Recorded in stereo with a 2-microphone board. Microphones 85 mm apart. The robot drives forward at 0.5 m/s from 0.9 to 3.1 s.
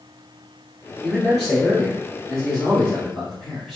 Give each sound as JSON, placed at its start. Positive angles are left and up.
{"t": 1.0, "sound": "a man speaking", "side_deg": 0, "distance_m": 1.8}